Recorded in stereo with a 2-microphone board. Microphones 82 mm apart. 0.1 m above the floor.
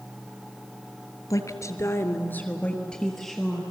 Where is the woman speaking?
40° left (ahead or behind), 1.7 m; by 3.6 s centre (ahead or behind), 2.5 m.